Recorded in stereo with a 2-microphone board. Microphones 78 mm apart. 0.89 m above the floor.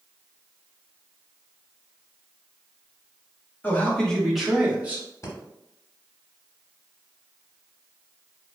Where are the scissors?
I don't hear scissors.